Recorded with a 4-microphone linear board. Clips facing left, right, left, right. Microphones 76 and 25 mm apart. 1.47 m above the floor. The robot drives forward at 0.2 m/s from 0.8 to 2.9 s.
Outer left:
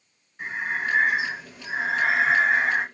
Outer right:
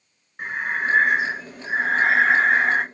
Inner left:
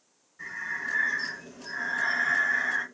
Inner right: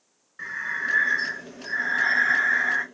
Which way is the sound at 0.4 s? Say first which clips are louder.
Outer right 3 dB, inner right 5 dB; 50° right (ahead or behind).